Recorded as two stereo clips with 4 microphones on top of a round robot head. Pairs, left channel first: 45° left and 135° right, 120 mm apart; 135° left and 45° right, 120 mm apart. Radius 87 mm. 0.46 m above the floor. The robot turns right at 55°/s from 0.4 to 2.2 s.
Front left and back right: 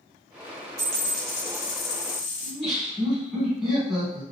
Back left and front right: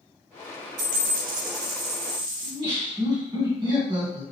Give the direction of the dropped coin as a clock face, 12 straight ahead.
2 o'clock.